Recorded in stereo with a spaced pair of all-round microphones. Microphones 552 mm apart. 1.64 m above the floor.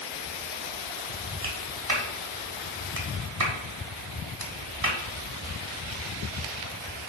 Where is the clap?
80° right, 1.9 m.